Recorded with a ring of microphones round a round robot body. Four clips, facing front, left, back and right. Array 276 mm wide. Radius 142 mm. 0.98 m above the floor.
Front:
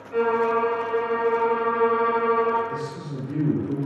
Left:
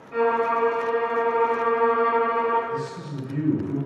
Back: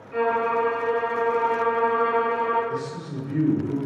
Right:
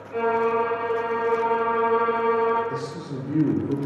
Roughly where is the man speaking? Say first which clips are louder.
Even, back 1 dB; right.